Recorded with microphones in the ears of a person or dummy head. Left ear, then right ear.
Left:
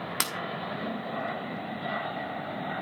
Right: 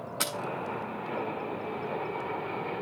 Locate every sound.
0.2 s breaking glass: 50° left (ahead or behind), 2.5 m